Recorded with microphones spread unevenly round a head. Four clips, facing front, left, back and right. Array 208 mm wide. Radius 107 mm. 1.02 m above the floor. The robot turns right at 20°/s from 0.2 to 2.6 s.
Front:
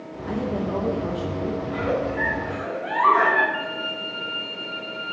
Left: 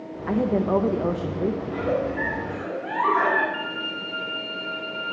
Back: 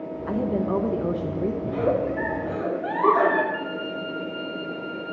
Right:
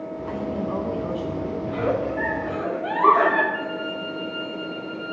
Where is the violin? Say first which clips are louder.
Right 3 dB, back 1 dB; 70° left, 1.3 m.